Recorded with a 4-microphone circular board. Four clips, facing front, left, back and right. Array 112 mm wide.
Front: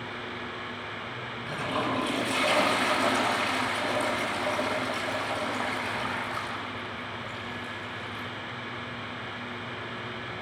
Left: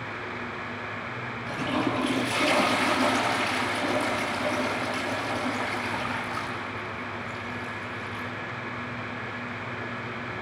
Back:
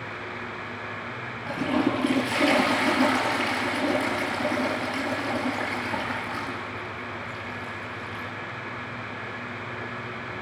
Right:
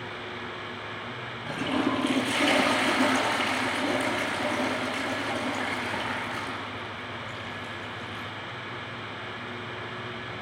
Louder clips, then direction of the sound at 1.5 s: Right 1 dB, back 6 dB; 155° right.